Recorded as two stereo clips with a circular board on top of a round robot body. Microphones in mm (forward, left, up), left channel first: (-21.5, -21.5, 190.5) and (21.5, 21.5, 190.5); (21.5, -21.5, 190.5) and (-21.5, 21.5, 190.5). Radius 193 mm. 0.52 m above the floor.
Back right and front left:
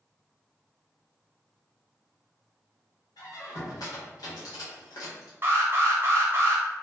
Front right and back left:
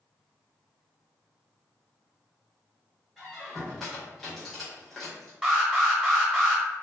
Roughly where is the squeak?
Behind right.